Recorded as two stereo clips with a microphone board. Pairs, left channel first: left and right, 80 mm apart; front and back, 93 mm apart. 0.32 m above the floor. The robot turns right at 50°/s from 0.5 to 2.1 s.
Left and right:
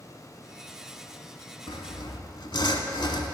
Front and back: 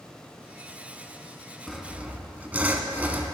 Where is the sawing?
85° left, 0.7 m; by 3.3 s 105° left, 0.7 m.